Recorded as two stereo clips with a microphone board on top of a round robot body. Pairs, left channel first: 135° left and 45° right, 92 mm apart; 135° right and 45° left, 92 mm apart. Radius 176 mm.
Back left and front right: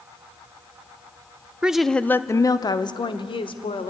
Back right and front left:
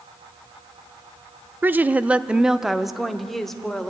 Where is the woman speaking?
15° left, 0.8 m; by 3.9 s 140° left, 1.6 m.